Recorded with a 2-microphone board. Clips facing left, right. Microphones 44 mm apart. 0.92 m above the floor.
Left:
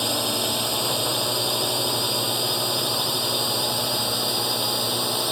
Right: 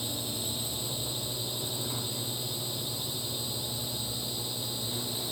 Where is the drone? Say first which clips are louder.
Left 11 dB; 85° left; by 5.3 s 80° left.